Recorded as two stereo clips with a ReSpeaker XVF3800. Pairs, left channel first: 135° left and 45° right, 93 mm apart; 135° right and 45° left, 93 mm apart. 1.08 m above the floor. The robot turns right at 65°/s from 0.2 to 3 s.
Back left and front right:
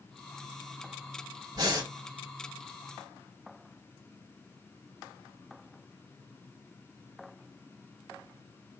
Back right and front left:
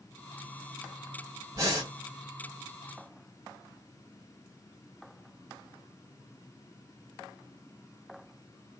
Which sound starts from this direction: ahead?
Breathing, at 1.6 s.